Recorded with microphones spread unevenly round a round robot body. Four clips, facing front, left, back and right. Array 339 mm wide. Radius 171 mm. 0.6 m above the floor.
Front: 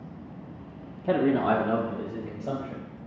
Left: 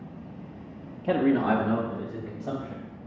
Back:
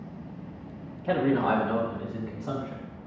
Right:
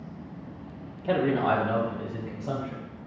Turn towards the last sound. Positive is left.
turn(degrees=35)